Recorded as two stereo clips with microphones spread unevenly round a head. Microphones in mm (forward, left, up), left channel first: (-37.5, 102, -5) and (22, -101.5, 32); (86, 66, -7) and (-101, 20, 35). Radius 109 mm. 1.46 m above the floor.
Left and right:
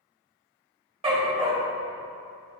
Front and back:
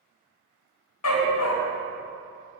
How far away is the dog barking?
About 3 m.